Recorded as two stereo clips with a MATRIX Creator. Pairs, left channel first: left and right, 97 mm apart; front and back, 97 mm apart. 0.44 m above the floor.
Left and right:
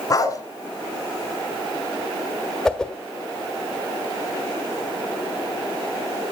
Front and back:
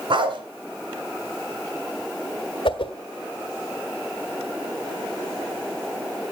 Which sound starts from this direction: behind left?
A dog barking, at 0.1 s.